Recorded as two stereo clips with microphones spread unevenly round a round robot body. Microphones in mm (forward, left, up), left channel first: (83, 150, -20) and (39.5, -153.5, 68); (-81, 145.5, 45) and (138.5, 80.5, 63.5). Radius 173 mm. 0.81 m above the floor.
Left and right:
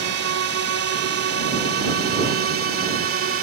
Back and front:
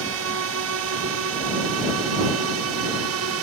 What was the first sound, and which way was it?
A drone, 55° right.